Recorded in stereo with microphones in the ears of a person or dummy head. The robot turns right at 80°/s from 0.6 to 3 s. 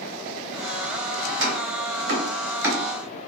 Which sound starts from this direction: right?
Chopping, at 1.3 s.